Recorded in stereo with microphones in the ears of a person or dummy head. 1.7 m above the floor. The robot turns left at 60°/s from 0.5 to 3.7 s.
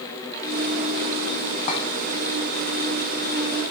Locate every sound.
1.7 s a clink: 45° left (ahead or behind), 1.4 m; by 1.8 s 35° left (ahead or behind), 1.4 m